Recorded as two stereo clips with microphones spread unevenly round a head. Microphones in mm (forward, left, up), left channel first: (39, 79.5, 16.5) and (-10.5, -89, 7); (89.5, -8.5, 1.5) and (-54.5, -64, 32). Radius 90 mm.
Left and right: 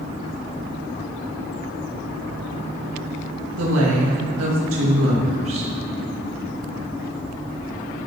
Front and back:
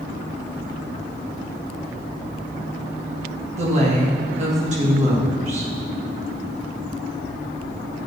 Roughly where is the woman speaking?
Behind right.